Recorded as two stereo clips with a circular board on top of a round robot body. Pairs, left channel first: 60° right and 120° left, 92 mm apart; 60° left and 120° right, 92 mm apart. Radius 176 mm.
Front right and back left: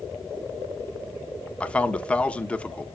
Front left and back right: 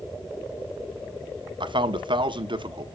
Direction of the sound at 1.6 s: 135° right.